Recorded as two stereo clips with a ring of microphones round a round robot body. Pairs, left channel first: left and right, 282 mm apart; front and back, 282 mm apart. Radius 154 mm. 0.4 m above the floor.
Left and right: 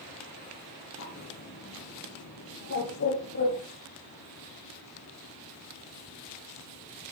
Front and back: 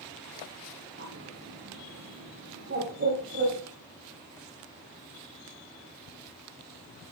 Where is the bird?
130° left, 6 m.